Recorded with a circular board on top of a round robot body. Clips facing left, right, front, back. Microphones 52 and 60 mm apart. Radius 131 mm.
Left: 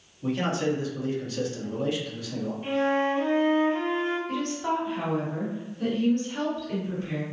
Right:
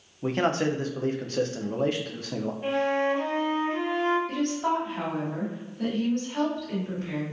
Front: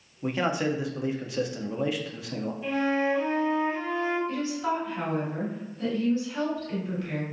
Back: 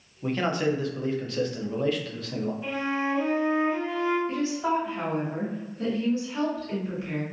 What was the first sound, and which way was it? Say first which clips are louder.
A man speaking: right 2 dB, back 1 dB; 75° right.